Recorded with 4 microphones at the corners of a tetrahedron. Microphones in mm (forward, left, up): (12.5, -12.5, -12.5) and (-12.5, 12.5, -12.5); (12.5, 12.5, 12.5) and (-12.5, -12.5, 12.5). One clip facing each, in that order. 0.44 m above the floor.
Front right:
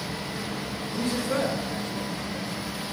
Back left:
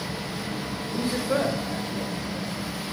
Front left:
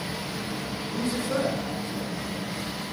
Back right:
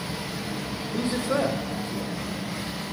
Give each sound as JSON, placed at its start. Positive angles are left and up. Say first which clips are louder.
{"t": 0.9, "sound": "a man speaking", "louder": "back left 2 dB, back right 2 dB", "azimuth_deg": -160, "distance_m": 1.8}